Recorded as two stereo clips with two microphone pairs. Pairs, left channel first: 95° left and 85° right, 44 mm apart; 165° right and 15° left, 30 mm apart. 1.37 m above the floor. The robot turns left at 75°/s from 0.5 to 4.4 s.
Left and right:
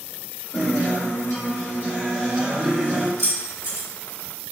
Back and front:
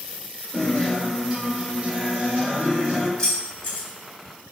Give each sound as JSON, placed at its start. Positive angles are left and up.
{"t": 0.5, "sound": "a guitar", "azimuth_deg": 130, "distance_m": 1.6}
{"t": 3.2, "sound": "keys jangling", "azimuth_deg": -95, "distance_m": 1.9}